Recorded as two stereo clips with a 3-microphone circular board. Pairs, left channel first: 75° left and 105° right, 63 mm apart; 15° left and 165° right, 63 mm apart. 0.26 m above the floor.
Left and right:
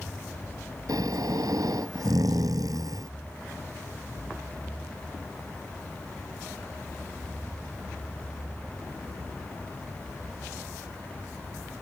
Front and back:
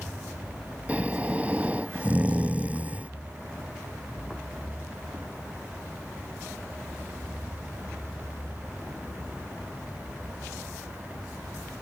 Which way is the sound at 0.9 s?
95° right.